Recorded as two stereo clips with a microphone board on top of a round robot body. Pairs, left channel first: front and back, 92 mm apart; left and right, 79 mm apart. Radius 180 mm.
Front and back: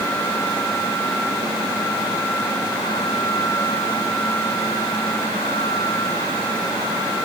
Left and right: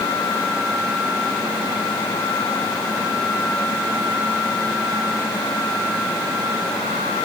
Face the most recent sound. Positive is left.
No sound to turn to.